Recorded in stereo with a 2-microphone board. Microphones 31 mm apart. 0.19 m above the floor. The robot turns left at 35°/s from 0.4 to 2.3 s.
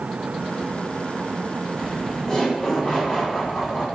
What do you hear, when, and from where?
1.8 s laughter: 30° left (ahead or behind), 1.0 m; by 3.9 s 25° left (ahead or behind), 1.0 m